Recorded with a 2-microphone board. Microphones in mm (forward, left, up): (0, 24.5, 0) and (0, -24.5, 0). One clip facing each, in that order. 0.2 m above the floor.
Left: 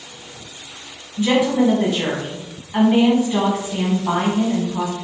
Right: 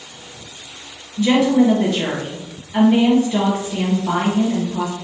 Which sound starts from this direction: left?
A woman speaking, at 1.2 s.